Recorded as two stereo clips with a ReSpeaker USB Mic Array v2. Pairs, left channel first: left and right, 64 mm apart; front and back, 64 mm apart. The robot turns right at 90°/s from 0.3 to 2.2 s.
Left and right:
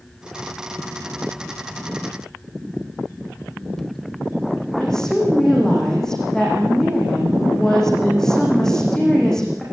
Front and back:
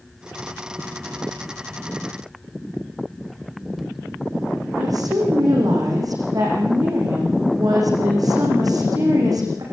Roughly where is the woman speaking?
Behind.